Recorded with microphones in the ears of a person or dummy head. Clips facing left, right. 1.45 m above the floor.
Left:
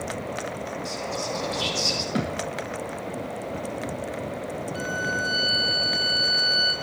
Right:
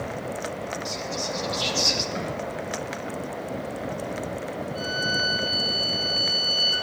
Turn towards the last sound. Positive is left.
turn(degrees=25)  # may be behind; listen again after turning